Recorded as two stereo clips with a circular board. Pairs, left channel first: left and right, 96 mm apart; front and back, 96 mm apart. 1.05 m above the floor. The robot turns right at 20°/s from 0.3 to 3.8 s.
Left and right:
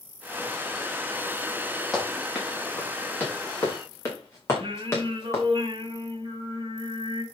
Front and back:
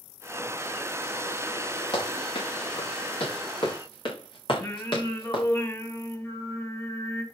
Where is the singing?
60° right, 2.5 m.